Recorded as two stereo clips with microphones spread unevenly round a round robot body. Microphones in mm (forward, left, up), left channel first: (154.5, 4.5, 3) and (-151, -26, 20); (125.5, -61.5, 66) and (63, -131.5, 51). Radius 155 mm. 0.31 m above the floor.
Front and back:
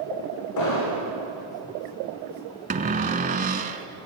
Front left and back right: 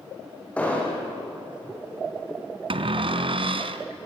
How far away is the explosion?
About 8 m.